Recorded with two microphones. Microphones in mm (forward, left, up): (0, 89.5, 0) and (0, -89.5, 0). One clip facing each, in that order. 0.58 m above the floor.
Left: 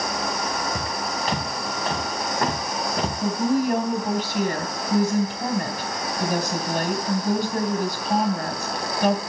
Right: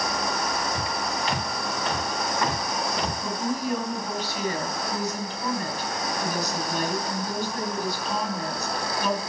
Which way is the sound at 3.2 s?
70° left (ahead or behind).